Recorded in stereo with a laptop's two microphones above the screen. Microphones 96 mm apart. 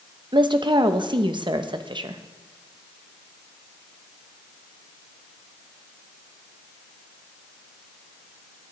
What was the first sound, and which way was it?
A woman speaking, 55° right (ahead or behind).